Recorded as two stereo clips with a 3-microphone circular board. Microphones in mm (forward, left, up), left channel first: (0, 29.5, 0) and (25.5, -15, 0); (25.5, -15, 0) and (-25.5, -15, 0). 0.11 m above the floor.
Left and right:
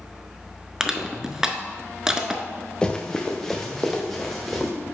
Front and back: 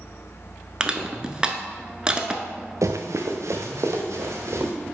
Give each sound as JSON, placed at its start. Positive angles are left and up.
{"t": 0.8, "sound": "crushing", "azimuth_deg": -125, "distance_m": 0.6}
{"t": 2.8, "sound": "running footsteps", "azimuth_deg": -170, "distance_m": 0.8}